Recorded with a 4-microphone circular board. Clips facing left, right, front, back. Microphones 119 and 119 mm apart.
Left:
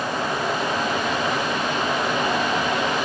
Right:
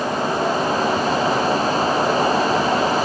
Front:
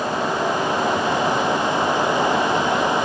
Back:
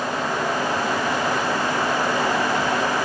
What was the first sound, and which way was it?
Only background noise.